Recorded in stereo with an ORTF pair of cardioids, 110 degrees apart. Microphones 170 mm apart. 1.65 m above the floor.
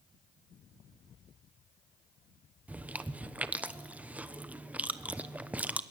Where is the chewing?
10° right, 1.1 m.